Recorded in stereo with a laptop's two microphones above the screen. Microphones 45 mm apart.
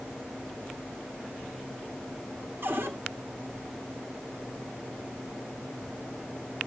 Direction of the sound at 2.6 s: 60° right (ahead or behind).